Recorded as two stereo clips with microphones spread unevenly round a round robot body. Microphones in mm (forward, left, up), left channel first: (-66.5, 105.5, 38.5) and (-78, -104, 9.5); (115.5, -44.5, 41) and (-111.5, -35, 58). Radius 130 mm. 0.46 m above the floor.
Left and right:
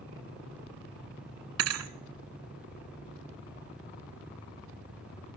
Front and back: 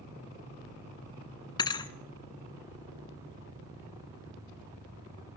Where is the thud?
75° right, 0.6 m.